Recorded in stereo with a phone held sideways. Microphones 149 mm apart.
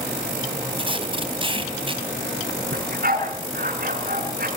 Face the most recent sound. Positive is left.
turn(degrees=-75)  # may be behind; listen again after turning